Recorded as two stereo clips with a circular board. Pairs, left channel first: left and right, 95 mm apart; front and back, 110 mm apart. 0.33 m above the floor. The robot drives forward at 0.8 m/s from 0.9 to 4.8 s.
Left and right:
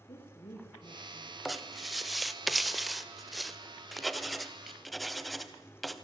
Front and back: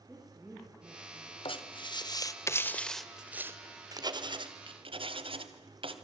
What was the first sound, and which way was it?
A woman speaking, 100° left.